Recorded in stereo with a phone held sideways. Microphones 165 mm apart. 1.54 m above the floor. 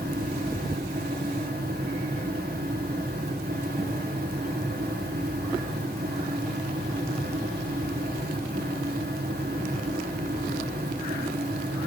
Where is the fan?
70° right (ahead or behind), 2.5 m.